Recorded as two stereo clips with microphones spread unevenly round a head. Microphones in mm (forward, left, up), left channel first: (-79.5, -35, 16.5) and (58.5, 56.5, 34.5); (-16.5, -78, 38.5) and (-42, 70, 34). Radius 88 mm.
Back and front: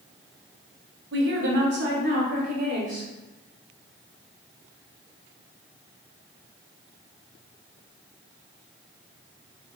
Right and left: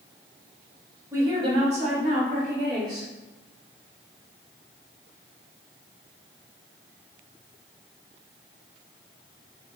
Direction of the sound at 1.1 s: 25° left.